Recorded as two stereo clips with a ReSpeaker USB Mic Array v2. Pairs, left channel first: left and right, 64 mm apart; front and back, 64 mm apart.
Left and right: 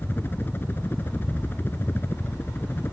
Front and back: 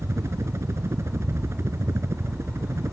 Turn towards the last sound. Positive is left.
turn(degrees=140)